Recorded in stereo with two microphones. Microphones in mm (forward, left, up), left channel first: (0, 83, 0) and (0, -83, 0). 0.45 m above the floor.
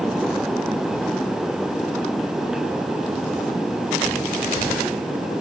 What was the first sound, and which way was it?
Only background noise.